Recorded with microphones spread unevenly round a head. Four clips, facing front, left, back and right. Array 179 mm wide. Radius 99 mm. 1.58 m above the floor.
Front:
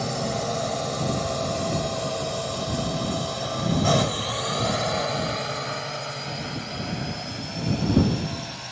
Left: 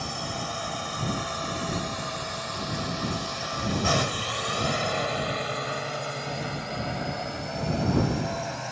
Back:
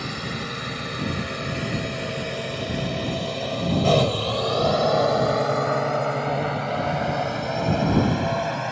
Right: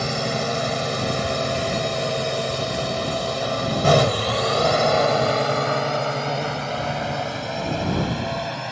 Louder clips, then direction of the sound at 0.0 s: Right 9 dB, front 4 dB; 95° right.